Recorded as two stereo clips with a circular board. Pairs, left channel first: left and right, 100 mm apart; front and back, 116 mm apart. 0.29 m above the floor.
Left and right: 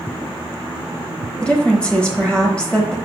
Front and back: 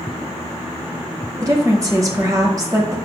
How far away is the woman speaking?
About 1.1 m.